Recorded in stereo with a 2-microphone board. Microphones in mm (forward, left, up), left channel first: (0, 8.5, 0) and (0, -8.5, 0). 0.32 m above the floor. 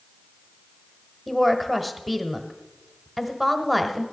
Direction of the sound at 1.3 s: Centre (ahead or behind).